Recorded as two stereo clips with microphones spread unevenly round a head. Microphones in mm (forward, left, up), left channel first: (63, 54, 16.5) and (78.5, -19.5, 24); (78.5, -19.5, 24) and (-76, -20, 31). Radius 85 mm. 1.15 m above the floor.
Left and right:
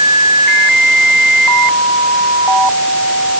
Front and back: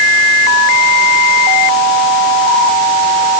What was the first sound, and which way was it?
Only background noise.